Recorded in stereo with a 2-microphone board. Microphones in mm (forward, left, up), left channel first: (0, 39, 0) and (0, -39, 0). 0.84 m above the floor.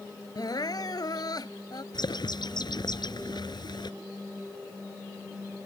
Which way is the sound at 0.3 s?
65° left (ahead or behind).